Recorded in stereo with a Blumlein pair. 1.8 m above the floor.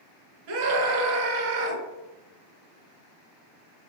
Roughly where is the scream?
Ahead right.